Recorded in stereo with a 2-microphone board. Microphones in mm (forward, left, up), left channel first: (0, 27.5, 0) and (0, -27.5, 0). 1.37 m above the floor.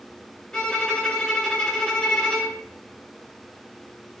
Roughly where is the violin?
Centre.